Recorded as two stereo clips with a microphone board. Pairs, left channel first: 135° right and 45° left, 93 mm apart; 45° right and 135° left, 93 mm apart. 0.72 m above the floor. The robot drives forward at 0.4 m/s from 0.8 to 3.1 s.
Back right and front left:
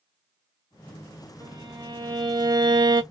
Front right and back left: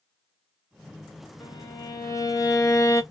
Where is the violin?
5° left, 1.1 m; by 3.0 s 10° left, 0.5 m.